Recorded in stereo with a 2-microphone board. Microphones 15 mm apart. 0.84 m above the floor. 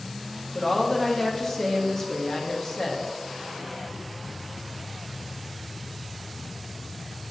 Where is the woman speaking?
25° left (ahead or behind), 0.6 m.